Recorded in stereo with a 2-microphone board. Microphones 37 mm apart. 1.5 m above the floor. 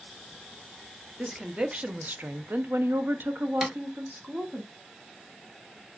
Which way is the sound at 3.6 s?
10° right (ahead or behind).